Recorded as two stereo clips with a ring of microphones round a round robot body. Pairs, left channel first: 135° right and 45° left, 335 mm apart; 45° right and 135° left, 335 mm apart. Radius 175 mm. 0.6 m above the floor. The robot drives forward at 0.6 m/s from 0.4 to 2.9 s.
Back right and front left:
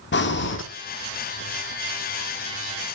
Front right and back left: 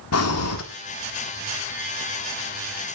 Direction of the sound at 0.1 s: 80° right.